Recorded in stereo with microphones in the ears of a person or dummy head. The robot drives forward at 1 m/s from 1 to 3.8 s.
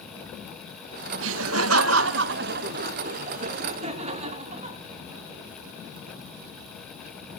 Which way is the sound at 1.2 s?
70° right (ahead or behind).